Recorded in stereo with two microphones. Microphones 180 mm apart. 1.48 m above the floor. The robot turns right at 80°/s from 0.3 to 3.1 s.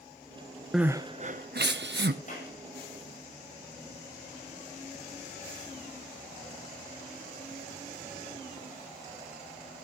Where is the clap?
45° left (ahead or behind), 7 m; by 2.6 s 65° left (ahead or behind), 7 m.